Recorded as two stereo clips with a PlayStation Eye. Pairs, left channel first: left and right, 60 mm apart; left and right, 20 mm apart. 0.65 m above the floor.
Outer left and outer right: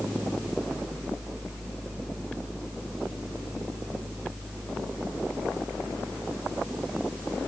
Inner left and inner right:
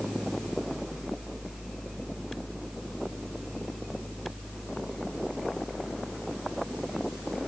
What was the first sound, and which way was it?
Only background noise.